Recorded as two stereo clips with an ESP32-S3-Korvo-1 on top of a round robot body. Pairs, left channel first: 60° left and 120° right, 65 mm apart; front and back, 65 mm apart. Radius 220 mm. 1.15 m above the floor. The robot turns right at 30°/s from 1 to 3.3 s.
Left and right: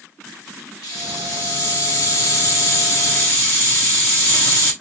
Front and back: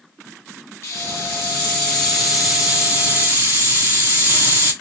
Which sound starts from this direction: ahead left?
A hiss, at 0.8 s.